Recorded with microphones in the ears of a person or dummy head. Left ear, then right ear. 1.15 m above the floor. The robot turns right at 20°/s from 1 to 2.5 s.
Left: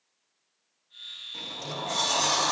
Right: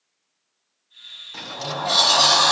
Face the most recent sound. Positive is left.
turn(degrees=-45)  # may be behind; listen again after turning